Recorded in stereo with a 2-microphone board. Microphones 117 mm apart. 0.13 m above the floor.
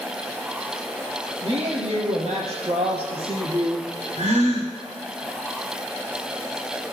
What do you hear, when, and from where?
1.4 s a woman speaking: 60° right (ahead or behind), 4 m; by 3.9 s 35° right (ahead or behind), 2.5 m
4.2 s a gasp: 70° right (ahead or behind), 3 m